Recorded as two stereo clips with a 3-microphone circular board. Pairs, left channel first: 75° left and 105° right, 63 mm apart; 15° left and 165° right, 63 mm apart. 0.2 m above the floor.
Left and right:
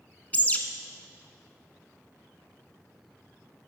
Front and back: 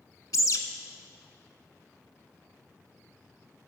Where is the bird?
15° left, 0.7 m.